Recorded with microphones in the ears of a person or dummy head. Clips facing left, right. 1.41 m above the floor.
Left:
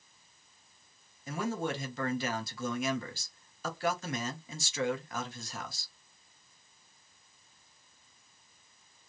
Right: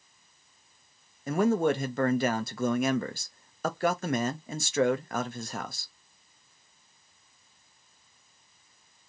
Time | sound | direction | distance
1.3 | a man speaking | 40° right (ahead or behind) | 0.5 m